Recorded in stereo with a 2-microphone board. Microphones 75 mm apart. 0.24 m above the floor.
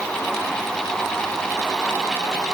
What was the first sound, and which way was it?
Only background noise.